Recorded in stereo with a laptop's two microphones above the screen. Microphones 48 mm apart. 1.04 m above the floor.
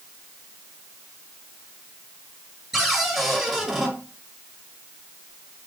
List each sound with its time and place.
2.7 s a cupboard door: 10° right (ahead or behind), 2 m